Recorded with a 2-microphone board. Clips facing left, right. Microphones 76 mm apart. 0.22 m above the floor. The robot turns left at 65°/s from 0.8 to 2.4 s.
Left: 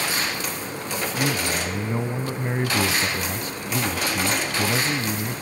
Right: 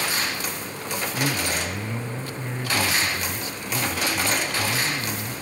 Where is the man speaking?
175° right, 1.4 m; by 5.4 s 100° left, 1.4 m.